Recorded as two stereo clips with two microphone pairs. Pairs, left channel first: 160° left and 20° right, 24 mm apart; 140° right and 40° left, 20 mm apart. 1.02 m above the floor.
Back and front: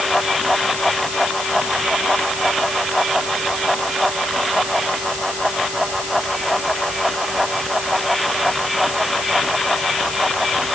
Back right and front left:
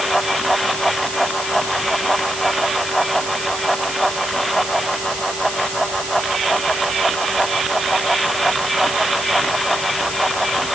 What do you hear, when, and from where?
Only background noise.